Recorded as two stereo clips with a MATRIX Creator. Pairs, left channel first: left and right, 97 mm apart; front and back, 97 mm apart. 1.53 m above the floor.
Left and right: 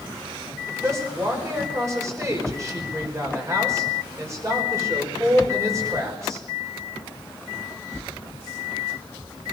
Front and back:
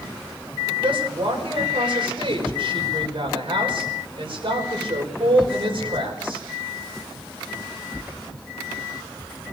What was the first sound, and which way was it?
A woman speaking, 150° right.